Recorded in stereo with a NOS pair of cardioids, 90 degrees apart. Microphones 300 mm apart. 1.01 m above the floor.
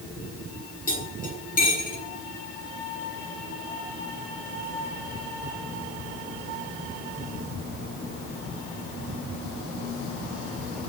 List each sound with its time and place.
0.9 s cutlery clinking: 25° left, 8 m